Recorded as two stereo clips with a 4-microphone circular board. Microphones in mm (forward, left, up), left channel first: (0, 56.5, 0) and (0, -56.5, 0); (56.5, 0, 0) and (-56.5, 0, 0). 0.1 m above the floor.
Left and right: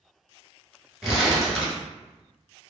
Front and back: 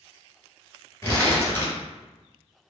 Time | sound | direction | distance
1.0 | crumpling | 15° right | 1.4 m